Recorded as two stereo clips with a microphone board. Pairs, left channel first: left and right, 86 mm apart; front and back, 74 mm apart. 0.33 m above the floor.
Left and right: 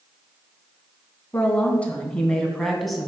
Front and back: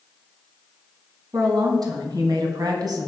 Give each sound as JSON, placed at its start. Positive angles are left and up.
{"t": 1.3, "sound": "a woman speaking", "azimuth_deg": 155, "distance_m": 3.5}